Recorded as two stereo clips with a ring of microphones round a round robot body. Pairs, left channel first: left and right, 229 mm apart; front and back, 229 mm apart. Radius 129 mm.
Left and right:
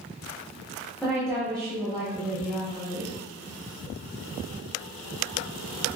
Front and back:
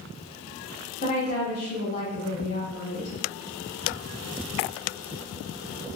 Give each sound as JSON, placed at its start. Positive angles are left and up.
{"t": 1.0, "sound": "a woman speaking", "azimuth_deg": 10, "distance_m": 1.4}